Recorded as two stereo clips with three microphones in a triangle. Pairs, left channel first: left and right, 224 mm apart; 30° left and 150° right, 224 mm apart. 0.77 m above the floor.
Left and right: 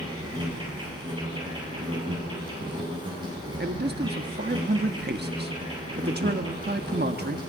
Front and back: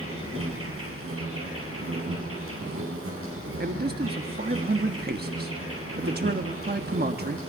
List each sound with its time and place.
0.0 s an insect: 160° right, 8.5 m
3.6 s a man speaking: 120° right, 1.4 m